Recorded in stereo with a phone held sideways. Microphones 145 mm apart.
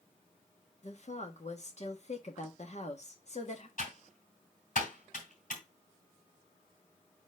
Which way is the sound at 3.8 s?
65° left (ahead or behind).